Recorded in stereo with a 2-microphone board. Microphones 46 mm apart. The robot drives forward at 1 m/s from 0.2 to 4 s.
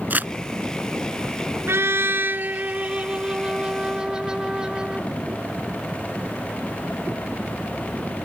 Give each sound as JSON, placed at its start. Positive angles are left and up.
{"t": 0.1, "sound": "crumpling", "side_deg": -40}
{"t": 1.7, "sound": "a trumpet", "side_deg": -65}